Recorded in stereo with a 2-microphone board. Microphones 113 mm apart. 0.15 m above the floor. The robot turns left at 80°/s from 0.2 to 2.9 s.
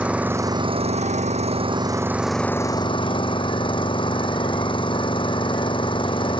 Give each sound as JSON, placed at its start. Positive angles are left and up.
{"t": 0.0, "sound": "an engine running", "azimuth_deg": -10}